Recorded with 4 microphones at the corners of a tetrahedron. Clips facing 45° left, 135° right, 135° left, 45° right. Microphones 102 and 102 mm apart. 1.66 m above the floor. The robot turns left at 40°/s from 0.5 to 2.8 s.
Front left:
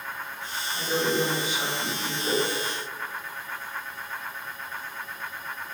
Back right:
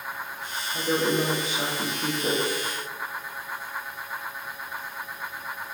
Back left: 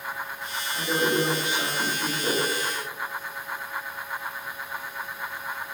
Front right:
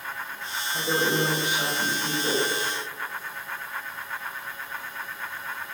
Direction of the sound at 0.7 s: 105° right.